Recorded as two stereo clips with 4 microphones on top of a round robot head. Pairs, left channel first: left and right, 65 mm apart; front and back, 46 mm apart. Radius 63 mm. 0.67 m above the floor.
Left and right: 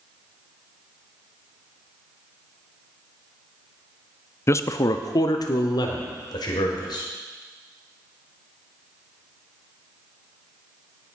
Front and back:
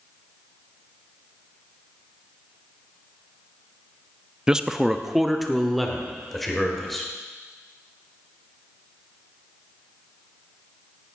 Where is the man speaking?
110° left, 0.6 m; by 7.1 s 85° left, 3 m.